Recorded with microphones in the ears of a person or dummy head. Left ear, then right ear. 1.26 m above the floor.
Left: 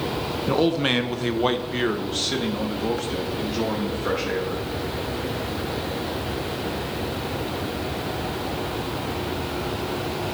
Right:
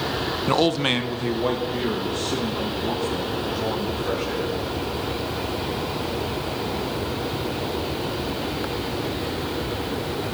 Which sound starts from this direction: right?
A man speaking, at 0.5 s.